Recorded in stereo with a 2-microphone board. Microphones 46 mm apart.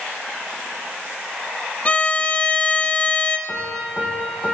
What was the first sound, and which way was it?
A violin, 30° left (ahead or behind).